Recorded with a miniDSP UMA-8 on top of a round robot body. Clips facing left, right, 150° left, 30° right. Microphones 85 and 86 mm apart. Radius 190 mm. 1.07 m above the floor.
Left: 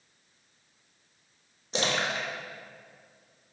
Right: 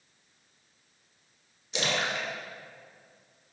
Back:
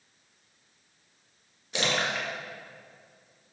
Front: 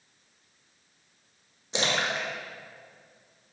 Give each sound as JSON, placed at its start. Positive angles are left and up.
{"t": 1.7, "sound": "a splash", "azimuth_deg": 35, "distance_m": 1.7}